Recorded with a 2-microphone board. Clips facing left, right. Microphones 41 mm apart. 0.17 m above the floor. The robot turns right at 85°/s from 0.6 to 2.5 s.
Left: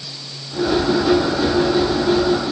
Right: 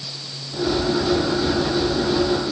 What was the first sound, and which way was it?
Only background noise.